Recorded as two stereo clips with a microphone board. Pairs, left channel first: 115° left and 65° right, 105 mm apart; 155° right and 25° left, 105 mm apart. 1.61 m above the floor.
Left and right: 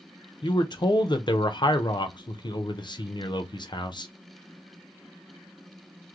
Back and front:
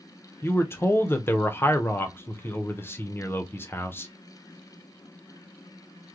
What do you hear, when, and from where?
0.4 s a man speaking: 140° left, 0.7 m